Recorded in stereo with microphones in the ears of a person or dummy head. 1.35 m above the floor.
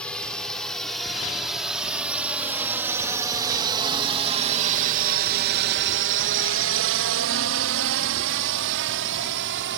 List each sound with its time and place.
0.0 s a drone: 10° left (ahead or behind); by 9.8 s 55° right (ahead or behind)